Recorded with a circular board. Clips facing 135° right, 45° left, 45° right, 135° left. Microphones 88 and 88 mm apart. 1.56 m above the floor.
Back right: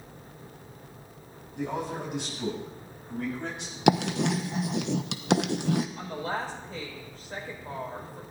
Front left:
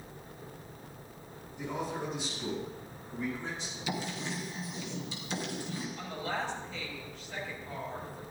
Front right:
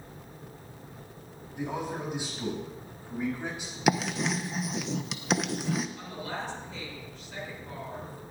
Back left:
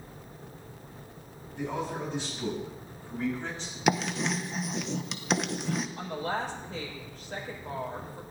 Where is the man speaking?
120° right, 9.5 m; by 3.8 s 125° right, 8.5 m.